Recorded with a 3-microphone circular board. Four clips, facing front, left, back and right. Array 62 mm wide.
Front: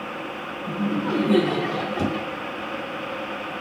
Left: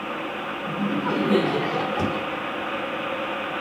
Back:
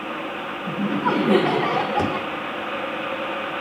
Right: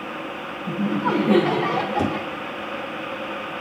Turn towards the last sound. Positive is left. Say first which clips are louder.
# right 2 dB, back 2 dB
turn(degrees=-170)